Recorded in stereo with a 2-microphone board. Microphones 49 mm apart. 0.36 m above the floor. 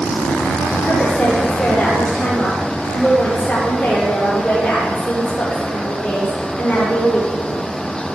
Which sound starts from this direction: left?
A woman speaking, at 0.8 s.